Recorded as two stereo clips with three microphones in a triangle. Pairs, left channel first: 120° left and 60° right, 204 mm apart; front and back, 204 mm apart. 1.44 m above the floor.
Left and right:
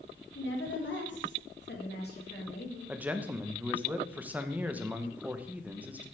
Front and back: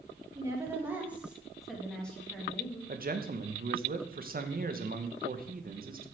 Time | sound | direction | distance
0.3 | a woman speaking | 105° left | 2.5 m
2.9 | a man speaking | 140° right | 0.9 m